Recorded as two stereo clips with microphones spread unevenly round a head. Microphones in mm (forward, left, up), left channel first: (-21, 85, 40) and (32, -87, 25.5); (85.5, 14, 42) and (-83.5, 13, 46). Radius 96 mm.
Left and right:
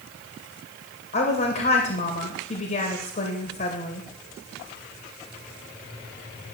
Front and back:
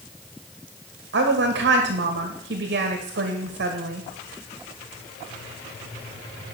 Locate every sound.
1.1 s a woman speaking: 155° left, 2 m